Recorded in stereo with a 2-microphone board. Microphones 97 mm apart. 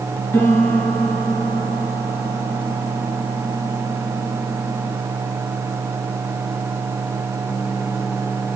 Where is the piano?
20° left (ahead or behind), 2 m.